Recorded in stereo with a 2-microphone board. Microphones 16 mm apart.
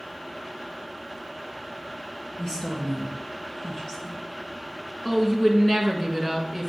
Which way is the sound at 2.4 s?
40° left (ahead or behind).